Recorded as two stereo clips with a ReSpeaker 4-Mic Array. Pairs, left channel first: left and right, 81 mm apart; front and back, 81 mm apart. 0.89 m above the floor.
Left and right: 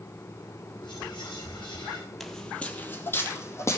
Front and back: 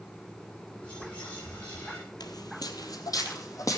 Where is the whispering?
75° left, 5.5 m.